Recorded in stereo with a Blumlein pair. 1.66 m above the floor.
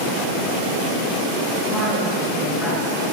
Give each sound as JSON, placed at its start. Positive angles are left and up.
{"t": 1.7, "sound": "a woman speaking", "azimuth_deg": 20, "distance_m": 2.0}